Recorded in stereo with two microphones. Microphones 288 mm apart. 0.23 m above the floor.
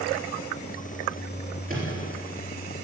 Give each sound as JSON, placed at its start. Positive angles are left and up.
{"t": 1.7, "sound": "a microwave", "side_deg": -30, "distance_m": 3.5}